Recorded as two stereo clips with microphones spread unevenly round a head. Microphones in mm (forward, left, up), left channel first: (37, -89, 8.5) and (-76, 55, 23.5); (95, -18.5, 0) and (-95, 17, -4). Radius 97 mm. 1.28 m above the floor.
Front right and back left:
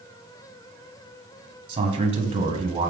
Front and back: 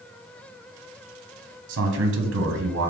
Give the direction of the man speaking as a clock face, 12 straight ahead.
6 o'clock.